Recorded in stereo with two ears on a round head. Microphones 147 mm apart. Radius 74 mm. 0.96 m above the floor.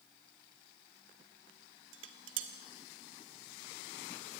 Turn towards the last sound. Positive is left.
turn(degrees=-85)